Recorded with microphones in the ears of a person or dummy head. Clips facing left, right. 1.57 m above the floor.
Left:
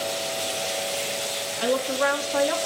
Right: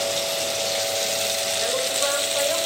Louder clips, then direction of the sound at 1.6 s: Left 5 dB; 90° left.